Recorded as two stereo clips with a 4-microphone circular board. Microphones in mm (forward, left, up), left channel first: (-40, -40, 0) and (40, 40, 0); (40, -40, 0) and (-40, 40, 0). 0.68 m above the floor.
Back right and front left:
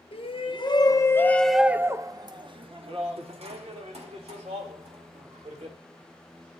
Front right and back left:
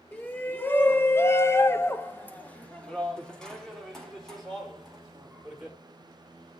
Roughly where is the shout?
Behind right.